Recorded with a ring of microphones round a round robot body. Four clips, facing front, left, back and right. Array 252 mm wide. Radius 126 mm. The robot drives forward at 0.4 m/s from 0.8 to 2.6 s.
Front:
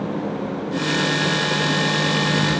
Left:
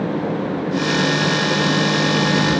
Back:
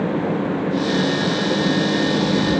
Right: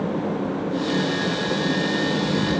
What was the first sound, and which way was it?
Only background noise.